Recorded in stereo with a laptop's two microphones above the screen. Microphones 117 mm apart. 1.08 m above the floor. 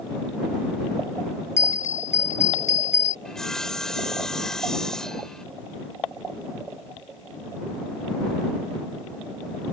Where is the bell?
75° left (ahead or behind).